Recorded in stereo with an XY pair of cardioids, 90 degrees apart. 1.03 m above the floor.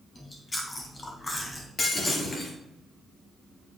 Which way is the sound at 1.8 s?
45° left.